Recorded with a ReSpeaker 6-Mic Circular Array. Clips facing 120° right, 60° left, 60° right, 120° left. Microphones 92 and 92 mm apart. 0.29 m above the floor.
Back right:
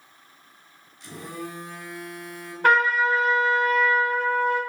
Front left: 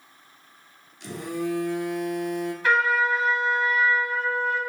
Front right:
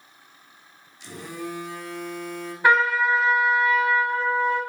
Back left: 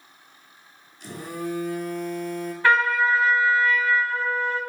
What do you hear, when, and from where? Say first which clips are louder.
1.0 s a phone buzzing: front left 7 dB, back left 3 dB; 75° left, 0.9 m
2.6 s a trumpet: back right 3 dB, front right 1 dB; 130° right, 0.8 m